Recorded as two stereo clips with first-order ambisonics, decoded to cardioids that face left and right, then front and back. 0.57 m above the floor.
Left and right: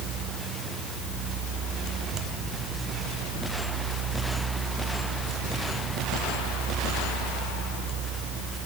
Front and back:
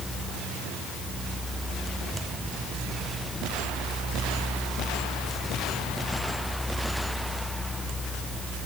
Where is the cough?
No cough in this recording.